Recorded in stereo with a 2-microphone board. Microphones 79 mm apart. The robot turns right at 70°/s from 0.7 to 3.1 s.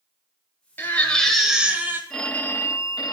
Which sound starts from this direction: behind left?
A baby crying, at 0.8 s.